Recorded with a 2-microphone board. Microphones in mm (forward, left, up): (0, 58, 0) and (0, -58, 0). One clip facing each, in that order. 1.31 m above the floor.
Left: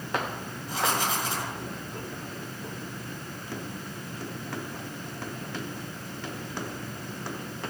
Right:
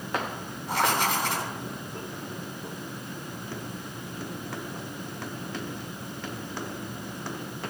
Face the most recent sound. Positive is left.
turn(degrees=-65)  # may be behind; listen again after turning